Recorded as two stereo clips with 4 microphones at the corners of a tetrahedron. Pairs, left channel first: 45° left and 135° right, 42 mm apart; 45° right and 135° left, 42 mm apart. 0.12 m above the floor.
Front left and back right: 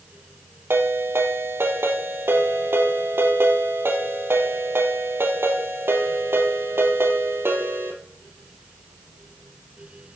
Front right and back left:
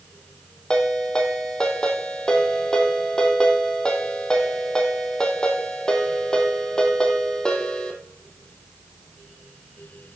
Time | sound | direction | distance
0.7 | a ringtone | 120° right | 2.5 m